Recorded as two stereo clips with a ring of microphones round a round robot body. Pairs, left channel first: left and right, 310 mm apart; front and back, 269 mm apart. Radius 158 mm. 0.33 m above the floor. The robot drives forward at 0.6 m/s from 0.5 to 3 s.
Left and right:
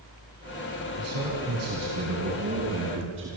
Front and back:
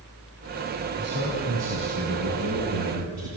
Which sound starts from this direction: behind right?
A man speaking, at 1.0 s.